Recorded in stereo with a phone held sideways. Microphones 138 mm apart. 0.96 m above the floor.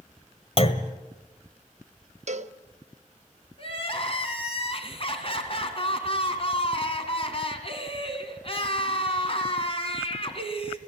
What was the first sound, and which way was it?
A clunk, 45° left (ahead or behind).